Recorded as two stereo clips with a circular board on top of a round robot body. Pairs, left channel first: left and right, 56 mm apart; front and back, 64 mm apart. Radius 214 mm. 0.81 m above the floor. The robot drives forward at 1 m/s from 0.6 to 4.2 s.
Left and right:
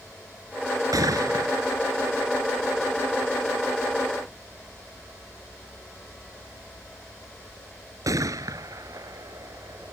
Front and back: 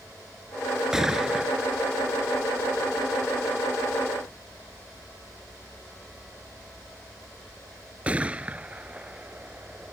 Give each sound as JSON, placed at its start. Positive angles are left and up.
{"t": 0.9, "sound": "a gunshot", "azimuth_deg": -95}